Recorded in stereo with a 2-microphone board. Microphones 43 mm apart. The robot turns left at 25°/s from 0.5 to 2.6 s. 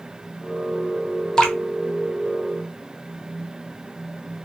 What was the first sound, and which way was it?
Dripping, 20° left (ahead or behind).